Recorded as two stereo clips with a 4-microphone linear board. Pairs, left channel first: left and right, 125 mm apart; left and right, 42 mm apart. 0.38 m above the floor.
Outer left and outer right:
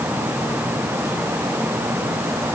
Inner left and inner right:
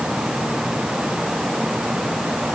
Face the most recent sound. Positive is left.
No sound to turn to.